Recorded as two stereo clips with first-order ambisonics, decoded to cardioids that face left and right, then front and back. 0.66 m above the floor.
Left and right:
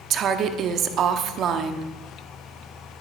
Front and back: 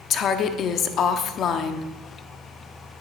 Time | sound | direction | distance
0.1 | a woman speaking | 50° right | 0.8 m